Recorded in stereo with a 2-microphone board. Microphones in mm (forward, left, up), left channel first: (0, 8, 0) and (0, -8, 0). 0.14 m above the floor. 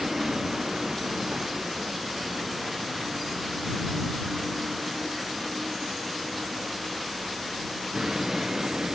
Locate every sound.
0.0 s a vehicle: 45° right (ahead or behind)